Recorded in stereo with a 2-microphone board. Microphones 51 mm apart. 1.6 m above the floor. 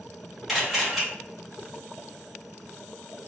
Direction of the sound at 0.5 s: 5° right (ahead or behind).